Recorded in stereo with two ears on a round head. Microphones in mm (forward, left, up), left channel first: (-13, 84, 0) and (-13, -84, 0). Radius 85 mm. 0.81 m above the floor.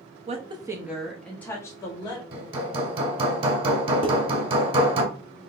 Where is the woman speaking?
35° right (ahead or behind), 0.8 m; by 2.2 s 20° left (ahead or behind), 1.7 m.